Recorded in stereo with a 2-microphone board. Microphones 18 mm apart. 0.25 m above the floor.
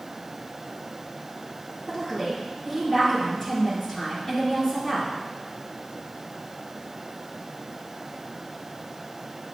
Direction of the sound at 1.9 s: 30° left (ahead or behind).